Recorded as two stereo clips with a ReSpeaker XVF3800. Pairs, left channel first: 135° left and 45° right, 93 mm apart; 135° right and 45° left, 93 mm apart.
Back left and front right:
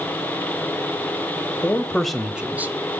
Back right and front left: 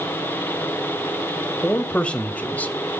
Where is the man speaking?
165° left, 0.9 m; by 2.8 s 85° right, 0.9 m.